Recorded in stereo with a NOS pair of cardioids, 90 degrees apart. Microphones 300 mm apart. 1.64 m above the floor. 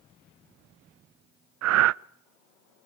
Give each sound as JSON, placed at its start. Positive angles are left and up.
{"t": 1.6, "sound": "breathing", "azimuth_deg": -60, "distance_m": 0.5}